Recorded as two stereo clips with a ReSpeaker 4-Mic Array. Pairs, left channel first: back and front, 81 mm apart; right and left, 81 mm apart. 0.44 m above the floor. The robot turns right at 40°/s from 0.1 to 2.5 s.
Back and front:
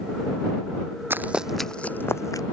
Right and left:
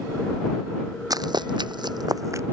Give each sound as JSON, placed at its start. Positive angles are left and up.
{"t": 1.1, "sound": "running footsteps", "azimuth_deg": 60}